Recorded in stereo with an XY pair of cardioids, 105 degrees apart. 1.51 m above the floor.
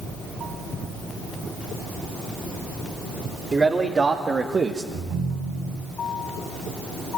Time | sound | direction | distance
3.5 | a man speaking | 30° right | 3 m
4.9 | a ringtone | 65° right | 8.5 m